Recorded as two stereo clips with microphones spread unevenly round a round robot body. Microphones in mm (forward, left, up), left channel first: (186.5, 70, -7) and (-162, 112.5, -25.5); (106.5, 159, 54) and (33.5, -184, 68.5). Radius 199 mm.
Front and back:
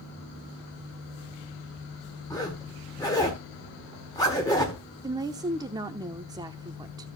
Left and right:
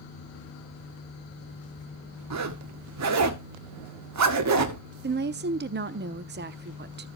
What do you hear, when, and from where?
2.3 s a zipper: 85° right, 1.6 m
5.0 s a woman speaking: 125° right, 0.8 m